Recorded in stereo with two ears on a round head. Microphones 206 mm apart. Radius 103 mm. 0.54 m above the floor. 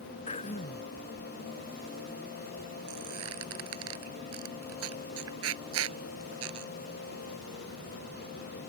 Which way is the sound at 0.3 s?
30° left (ahead or behind).